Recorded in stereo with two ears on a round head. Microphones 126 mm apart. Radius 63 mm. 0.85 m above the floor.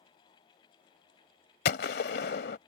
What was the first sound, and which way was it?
A gunshot, 80° left.